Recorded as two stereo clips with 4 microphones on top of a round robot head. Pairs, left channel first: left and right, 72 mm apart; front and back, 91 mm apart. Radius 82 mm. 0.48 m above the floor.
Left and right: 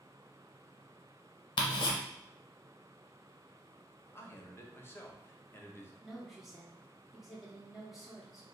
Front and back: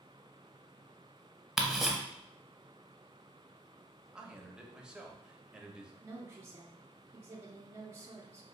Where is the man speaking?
105° left, 0.8 m.